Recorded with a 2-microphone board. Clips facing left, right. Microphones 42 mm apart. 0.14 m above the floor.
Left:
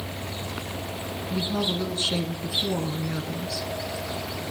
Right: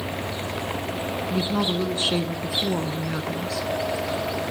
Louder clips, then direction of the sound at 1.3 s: Right 2 dB; 25° right (ahead or behind).